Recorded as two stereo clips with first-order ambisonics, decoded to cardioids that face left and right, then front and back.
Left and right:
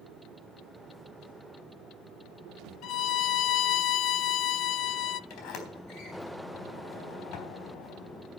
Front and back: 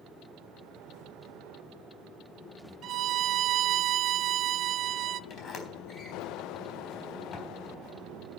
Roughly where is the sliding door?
Ahead left.